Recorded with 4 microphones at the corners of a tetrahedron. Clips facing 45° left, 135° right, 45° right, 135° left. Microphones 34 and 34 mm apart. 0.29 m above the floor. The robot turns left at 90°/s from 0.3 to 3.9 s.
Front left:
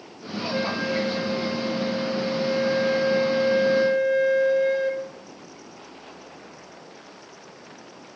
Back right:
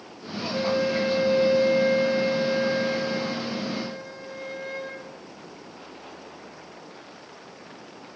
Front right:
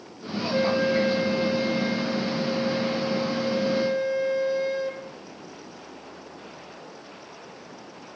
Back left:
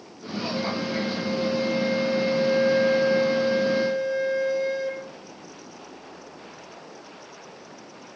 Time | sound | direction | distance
0.5 | a flute | 10° right | 4 m